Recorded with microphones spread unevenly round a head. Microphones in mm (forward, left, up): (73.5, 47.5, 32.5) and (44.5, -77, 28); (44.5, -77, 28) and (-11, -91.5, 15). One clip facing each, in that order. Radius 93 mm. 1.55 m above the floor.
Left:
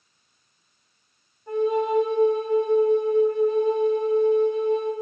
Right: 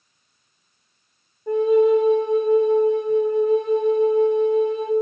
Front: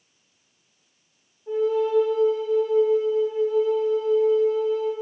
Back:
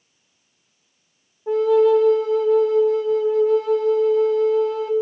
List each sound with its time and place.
1.5 s a flute: 145° right, 0.8 m